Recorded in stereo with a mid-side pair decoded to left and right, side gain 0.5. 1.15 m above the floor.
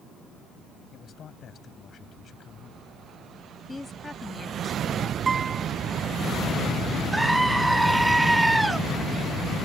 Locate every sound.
0.9 s a man speaking: 50° left
3.7 s a woman speaking: 20° left
5.3 s a guitar: 30° right
7.1 s a scream: 10° right